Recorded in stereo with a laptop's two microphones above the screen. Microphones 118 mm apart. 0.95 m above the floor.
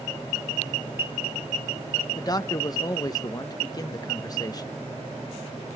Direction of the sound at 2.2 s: 30° left (ahead or behind).